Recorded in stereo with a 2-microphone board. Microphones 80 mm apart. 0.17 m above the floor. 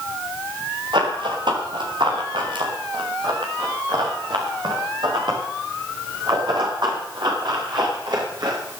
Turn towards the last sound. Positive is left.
turn(degrees=-65)  # may be behind; listen again after turning